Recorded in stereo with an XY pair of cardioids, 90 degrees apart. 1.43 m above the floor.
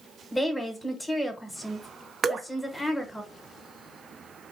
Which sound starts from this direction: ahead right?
Dripping, at 2.2 s.